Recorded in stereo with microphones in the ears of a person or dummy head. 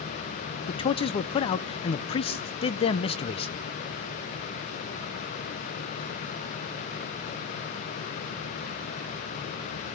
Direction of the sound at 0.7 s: 35° left (ahead or behind).